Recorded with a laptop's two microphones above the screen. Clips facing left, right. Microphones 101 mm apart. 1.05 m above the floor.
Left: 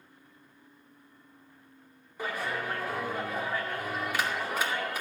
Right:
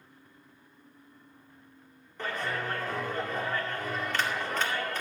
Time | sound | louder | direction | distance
2.2 | a clap | even | 10° left (ahead or behind) | 2 m